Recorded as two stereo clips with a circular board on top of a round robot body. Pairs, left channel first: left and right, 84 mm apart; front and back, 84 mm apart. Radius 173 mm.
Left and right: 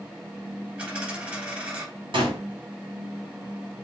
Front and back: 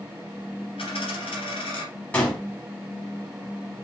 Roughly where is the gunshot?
Right.